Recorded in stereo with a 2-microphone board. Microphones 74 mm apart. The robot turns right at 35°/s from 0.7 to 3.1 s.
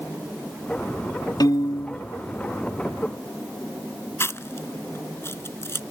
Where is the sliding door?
I don't hear a sliding door.